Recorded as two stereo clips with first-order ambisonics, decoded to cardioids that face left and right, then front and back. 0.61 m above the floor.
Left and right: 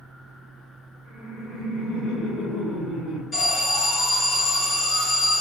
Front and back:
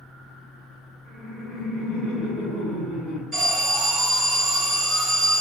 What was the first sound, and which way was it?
Laughter, 125° left.